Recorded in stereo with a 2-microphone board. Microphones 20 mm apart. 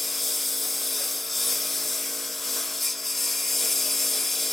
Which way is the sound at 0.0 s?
5° left (ahead or behind).